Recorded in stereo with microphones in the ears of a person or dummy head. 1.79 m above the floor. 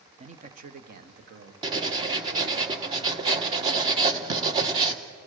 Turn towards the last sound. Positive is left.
turn(degrees=-30)  # may be behind; listen again after turning